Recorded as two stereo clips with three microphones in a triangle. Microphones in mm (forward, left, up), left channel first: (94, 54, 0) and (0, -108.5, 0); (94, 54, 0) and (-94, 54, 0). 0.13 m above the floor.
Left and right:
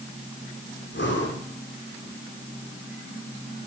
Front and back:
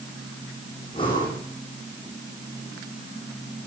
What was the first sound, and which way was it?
Breathing, 65° left.